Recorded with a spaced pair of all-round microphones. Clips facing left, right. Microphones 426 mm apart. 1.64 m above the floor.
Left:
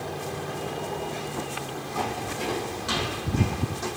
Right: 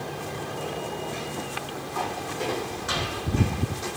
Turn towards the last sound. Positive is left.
turn(degrees=60)  # may be behind; listen again after turning